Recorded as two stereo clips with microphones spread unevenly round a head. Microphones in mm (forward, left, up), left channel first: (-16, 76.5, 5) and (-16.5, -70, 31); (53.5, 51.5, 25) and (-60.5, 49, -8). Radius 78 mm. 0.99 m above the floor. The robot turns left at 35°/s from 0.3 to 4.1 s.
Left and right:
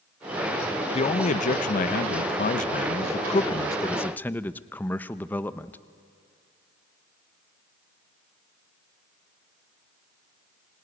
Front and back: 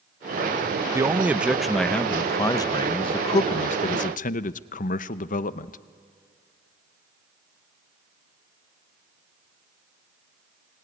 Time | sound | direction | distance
0.9 | a man speaking | 125° left | 0.7 m